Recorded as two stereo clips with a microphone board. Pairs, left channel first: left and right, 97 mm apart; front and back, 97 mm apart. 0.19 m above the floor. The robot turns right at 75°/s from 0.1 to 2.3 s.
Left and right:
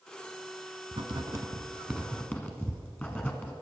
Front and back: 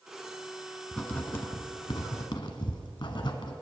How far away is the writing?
About 1.0 m.